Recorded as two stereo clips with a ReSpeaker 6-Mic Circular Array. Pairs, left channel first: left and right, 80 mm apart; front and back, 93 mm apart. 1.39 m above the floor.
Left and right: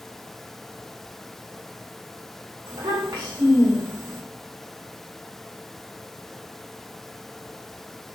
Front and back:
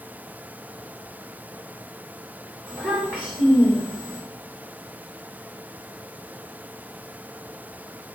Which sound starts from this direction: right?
A child speaking, at 2.7 s.